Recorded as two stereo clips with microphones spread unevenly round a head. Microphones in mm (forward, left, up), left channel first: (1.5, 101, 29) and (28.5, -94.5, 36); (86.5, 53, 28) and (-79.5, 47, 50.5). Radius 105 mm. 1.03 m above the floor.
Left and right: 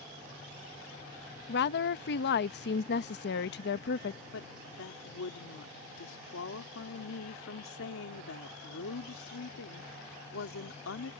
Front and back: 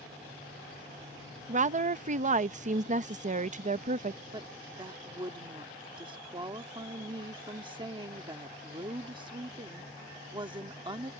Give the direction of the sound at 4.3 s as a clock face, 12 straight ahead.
8 o'clock.